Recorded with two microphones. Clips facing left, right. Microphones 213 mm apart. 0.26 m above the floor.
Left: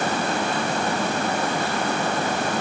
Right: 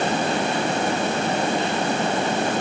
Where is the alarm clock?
No alarm clock in this recording.